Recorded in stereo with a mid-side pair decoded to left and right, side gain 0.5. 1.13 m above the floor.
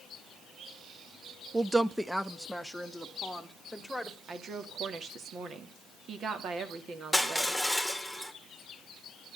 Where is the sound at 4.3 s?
55° right, 2.5 m.